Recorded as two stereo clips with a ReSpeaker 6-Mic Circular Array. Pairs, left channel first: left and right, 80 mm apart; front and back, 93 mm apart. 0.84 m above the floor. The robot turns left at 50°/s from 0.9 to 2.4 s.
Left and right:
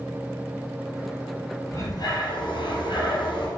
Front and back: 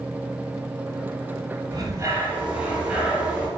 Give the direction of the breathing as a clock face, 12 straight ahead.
8 o'clock.